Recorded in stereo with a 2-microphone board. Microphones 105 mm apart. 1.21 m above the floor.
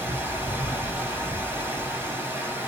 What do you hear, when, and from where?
0.0 s running water: 20° right (ahead or behind), 1.2 m